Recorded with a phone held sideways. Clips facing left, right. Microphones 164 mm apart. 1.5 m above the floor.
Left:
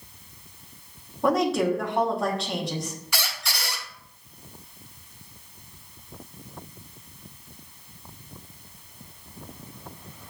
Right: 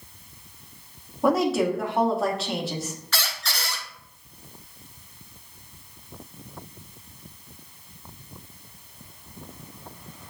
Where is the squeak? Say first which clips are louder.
Even; 10° left (ahead or behind), 0.6 m.